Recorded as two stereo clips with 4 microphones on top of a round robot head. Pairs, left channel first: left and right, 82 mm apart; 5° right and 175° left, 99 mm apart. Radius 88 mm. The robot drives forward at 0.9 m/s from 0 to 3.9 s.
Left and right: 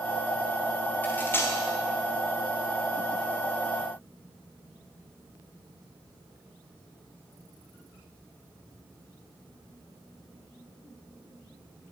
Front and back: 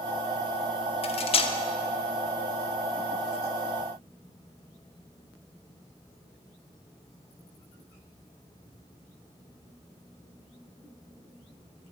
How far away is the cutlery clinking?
About 1.1 m.